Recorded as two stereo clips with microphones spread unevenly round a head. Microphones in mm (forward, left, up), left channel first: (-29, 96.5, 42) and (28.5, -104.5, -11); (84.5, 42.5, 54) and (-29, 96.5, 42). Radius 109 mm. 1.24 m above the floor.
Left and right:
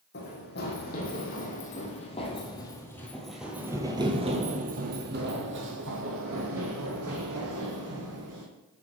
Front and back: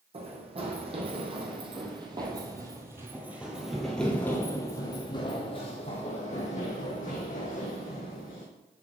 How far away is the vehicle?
I don't hear a vehicle.